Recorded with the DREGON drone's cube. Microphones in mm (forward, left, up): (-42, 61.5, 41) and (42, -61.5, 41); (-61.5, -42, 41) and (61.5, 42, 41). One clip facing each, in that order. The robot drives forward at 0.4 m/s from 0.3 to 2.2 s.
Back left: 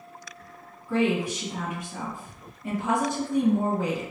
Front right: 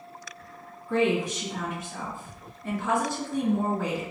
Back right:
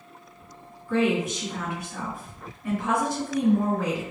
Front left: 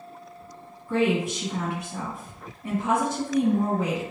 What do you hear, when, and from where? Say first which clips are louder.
0.9 s a woman speaking: even, even; 45° left, 1.7 m; by 4.0 s 75° left, 1.5 m